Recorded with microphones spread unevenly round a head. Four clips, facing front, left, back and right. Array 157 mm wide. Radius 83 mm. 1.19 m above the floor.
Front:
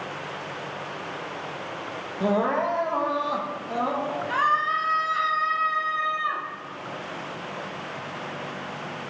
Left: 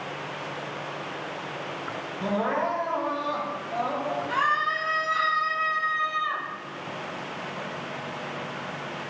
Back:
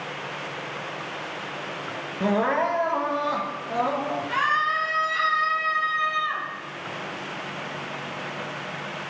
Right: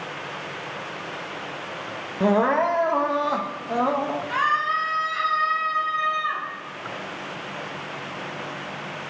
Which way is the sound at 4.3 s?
15° left.